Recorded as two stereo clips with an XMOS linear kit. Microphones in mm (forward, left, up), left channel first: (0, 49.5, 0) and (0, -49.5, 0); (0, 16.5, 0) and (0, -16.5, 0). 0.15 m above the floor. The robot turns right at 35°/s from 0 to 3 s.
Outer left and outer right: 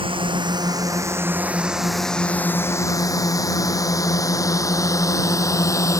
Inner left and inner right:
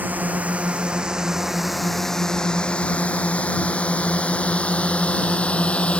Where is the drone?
65° right (ahead or behind); by 6.0 s 35° left (ahead or behind).